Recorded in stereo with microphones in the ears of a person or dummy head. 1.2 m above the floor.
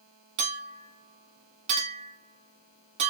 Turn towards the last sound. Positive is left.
turn(degrees=-35)  # may be behind; listen again after turning